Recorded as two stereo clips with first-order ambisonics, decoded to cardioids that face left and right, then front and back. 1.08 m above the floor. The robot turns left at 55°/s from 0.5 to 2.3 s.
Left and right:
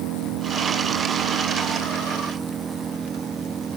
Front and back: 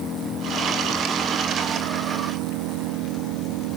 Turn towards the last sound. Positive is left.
turn(degrees=-160)